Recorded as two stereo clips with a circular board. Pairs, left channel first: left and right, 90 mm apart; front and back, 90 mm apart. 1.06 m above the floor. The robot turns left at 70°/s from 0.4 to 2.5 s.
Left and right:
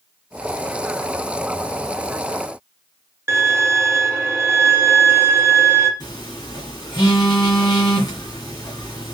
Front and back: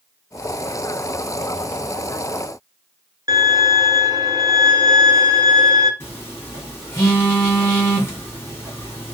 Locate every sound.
3.3 s a violin: 150° right, 0.9 m
6.0 s a phone buzzing: 60° left, 1.8 m